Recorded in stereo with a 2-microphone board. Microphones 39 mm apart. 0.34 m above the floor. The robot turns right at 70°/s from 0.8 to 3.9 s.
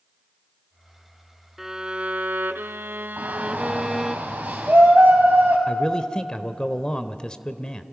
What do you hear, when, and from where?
1.6 s a violin: 170° right, 0.6 m; by 4.2 s 5° right, 0.6 m
3.2 s a shout: 105° right, 1.9 m; by 5.6 s 55° right, 1.9 m
5.7 s a man speaking: 25° left (ahead or behind), 0.9 m